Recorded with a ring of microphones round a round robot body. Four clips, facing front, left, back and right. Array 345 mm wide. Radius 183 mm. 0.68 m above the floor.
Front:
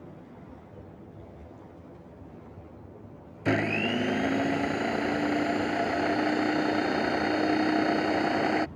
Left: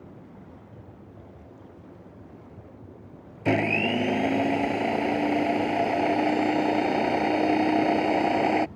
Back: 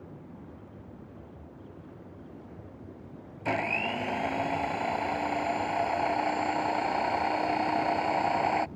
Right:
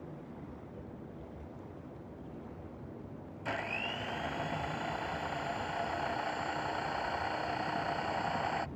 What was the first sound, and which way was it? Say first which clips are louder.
A blender: left 14 dB, front 4 dB; 60° left.